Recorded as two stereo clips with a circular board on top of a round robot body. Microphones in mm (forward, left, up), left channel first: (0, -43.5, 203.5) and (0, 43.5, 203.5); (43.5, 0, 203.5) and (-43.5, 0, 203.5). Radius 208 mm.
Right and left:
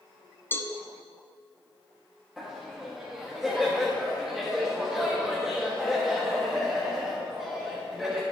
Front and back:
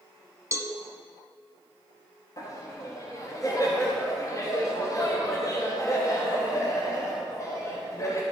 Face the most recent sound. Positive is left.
turn(degrees=5)